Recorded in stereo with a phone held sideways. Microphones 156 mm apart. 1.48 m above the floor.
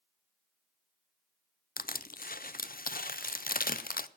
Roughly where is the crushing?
Left.